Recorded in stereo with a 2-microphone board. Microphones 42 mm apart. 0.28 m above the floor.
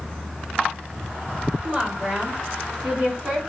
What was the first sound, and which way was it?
A woman speaking, 25° right (ahead or behind).